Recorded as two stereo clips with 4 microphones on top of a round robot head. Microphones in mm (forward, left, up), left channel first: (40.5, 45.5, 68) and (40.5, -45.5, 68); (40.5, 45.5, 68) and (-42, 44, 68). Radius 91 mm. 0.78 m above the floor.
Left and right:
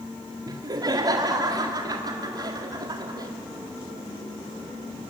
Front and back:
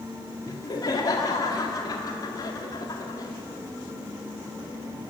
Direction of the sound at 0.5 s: 50° right.